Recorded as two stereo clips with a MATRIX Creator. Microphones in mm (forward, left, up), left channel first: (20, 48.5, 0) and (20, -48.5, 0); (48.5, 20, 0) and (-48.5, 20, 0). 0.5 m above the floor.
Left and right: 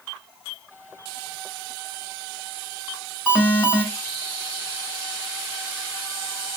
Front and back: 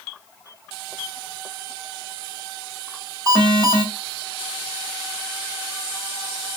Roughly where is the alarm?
Behind.